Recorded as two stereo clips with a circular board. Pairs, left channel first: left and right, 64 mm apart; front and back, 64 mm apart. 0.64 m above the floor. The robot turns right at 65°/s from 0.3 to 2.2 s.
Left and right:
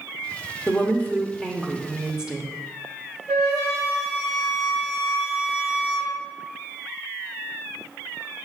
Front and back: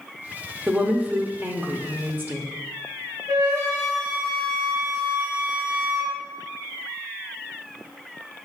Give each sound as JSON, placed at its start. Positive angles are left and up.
{"t": 0.7, "sound": "a woman speaking", "azimuth_deg": 100, "distance_m": 0.8}
{"t": 3.3, "sound": "a flute", "azimuth_deg": 125, "distance_m": 3.0}